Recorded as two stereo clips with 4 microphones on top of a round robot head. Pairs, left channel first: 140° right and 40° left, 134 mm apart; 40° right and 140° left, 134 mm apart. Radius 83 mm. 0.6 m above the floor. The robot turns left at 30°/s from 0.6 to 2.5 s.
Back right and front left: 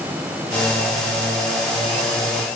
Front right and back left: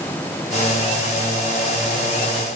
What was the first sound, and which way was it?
Only background noise.